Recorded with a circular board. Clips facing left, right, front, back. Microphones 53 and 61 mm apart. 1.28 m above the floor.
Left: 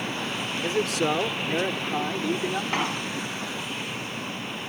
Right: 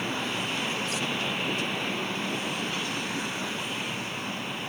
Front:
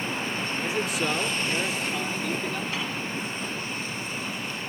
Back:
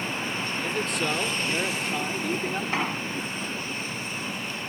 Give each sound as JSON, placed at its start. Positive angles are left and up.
{"t": 0.6, "sound": "a man speaking", "azimuth_deg": 80}
{"t": 2.7, "sound": "an explosion", "azimuth_deg": 125}